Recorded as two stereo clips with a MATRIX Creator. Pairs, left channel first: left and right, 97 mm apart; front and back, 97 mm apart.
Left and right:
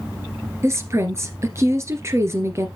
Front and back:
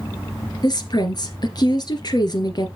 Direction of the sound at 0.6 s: 35° right.